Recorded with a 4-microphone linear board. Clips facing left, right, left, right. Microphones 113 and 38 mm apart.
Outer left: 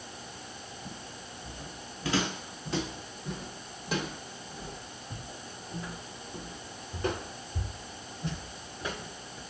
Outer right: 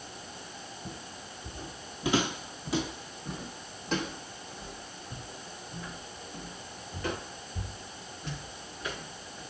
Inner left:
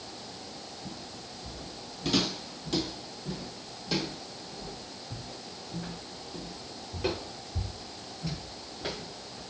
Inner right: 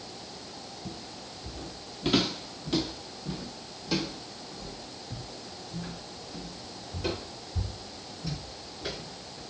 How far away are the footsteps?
About 2 m.